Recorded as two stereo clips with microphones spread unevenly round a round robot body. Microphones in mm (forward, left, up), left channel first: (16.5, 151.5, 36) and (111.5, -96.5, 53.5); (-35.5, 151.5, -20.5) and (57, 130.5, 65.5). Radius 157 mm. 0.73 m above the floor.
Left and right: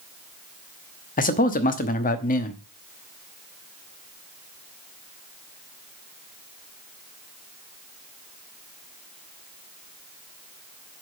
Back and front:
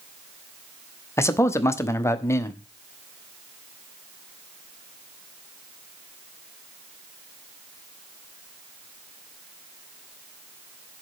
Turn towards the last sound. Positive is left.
turn(degrees=165)